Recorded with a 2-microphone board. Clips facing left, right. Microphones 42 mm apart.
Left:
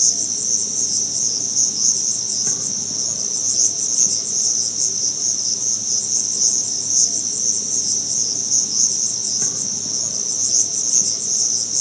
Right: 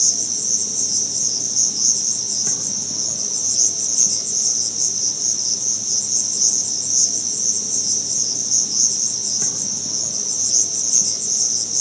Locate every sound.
0.0 s an insect: centre (ahead or behind), 1.0 m